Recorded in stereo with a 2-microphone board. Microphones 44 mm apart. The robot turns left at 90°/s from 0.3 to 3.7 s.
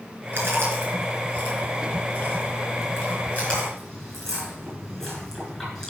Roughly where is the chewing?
Right.